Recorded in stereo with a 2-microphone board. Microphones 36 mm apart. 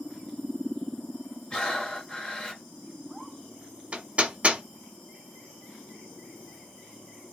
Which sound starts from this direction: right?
Hammering, at 3.9 s.